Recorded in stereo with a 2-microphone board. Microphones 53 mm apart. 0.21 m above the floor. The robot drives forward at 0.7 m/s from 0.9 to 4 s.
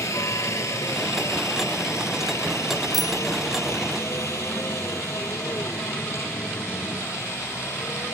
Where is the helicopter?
70° left (ahead or behind); by 8.2 s 60° left (ahead or behind).